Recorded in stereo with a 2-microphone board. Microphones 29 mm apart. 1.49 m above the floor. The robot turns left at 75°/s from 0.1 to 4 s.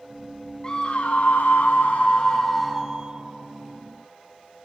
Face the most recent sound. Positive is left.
turn(degrees=-95)